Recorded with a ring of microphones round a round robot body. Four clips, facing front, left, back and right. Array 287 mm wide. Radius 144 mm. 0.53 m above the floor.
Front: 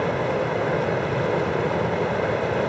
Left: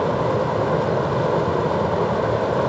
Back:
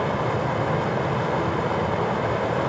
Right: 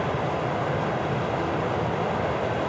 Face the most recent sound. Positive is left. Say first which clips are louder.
# left 6 dB, front 1 dB
turn(degrees=65)